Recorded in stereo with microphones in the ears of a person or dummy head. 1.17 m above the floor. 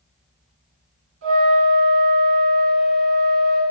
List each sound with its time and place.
1.2 s a flute: 70° right (ahead or behind), 2.5 m